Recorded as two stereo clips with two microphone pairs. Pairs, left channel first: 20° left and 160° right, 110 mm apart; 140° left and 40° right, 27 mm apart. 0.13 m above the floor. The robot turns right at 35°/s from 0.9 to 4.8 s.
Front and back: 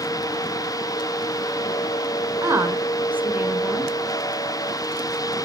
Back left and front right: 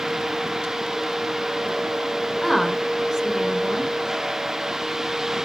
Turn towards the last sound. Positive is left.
turn(degrees=-55)